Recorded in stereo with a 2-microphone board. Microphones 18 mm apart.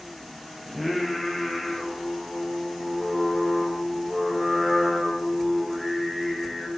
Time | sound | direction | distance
0.7 | singing | centre (ahead or behind) | 6 m